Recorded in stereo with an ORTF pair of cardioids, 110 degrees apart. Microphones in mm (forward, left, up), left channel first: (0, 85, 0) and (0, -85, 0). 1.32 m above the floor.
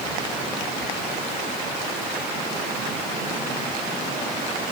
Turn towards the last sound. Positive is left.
No sound to turn to.